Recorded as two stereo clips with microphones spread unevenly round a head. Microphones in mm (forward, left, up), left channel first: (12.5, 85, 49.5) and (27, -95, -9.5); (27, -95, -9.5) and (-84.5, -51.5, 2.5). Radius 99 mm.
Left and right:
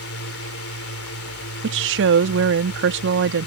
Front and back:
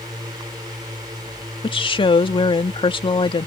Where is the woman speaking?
70° right.